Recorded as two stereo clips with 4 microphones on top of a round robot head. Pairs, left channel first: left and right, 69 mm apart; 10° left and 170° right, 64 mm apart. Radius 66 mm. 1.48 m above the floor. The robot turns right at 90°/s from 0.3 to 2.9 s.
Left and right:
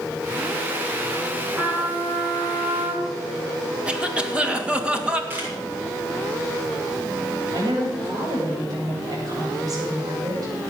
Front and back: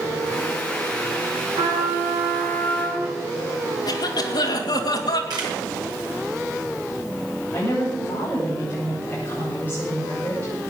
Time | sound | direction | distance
1.6 | a trumpet | straight behind | 10 m
3.9 | a cough | 15° right | 2.5 m
5.3 | a camera shutter | 155° right | 4.5 m
7.5 | a woman speaking | 60° right | 9.5 m